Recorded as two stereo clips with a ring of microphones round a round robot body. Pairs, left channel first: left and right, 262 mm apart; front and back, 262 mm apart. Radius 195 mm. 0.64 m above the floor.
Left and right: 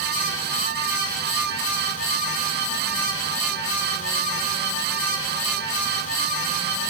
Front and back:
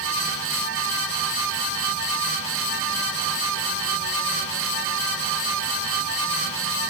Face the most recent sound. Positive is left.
No sound to turn to.